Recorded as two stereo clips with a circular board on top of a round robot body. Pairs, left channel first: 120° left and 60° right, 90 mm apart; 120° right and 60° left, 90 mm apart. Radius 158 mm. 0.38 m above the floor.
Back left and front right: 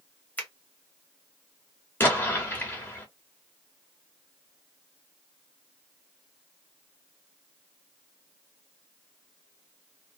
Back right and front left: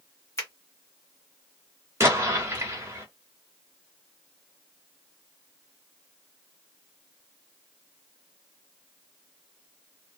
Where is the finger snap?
170° right, 1.7 m.